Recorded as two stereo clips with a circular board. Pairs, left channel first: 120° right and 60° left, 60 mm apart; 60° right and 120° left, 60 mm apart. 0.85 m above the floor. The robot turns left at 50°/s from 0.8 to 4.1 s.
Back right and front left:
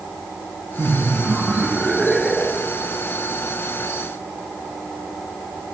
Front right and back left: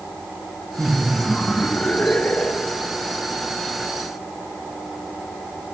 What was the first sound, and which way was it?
Laughter, 30° left.